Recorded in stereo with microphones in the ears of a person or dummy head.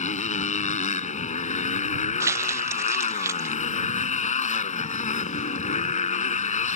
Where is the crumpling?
20° right (ahead or behind).